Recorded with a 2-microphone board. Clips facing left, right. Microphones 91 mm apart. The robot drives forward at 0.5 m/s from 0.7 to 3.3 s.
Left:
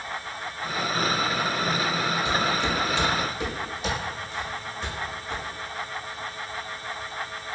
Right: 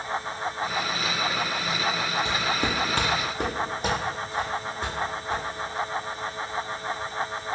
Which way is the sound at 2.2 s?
30° right (ahead or behind).